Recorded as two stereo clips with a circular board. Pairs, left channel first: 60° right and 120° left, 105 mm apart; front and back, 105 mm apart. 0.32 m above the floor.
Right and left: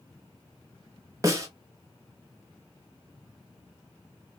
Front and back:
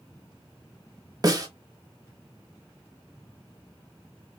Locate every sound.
1.2 s a snare drum: 160° left, 0.9 m